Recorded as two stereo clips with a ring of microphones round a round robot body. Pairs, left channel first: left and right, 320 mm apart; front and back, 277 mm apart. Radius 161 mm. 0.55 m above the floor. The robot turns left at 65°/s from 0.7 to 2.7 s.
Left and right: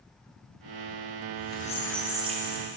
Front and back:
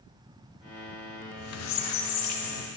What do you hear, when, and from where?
1.2 s a squeak: 50° left, 0.6 m; by 2.7 s 45° right, 0.6 m